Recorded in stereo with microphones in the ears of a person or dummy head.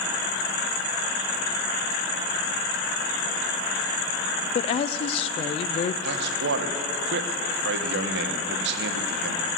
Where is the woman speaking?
35° left (ahead or behind), 0.5 m.